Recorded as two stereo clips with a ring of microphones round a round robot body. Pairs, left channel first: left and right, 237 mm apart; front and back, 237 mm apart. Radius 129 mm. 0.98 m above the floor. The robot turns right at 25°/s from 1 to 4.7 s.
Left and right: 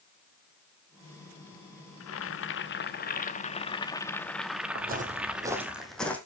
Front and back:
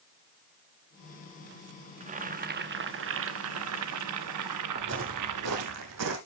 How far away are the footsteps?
About 1.9 m.